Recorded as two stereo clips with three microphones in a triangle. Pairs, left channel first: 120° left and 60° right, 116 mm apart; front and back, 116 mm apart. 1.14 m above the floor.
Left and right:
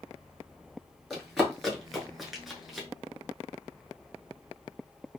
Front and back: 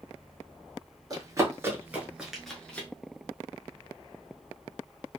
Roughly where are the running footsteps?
Behind right.